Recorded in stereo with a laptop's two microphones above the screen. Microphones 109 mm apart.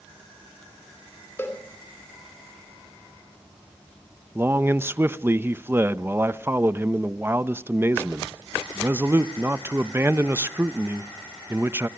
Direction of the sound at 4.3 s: 20° right (ahead or behind).